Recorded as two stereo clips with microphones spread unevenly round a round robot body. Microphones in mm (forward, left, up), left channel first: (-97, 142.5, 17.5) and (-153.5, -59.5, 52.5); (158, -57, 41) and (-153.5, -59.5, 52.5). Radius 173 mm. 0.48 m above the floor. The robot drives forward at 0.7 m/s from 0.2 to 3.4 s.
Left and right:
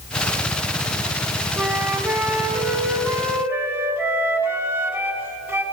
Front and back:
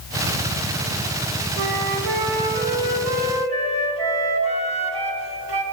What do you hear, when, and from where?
1.6 s a flute: 170° left, 1.5 m; by 5.6 s 175° left, 3 m